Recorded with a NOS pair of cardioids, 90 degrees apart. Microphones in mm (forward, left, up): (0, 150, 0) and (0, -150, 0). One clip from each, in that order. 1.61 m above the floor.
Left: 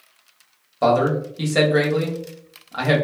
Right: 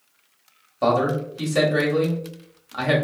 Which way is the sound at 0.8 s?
15° left.